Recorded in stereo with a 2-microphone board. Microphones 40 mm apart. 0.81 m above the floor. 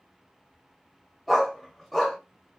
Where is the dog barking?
Centre (ahead or behind), 1.8 m.